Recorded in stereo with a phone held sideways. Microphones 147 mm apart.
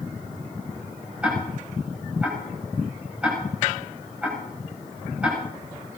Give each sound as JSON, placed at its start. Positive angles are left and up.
{"t": 1.2, "sound": "ticking", "side_deg": -10, "distance_m": 7.5}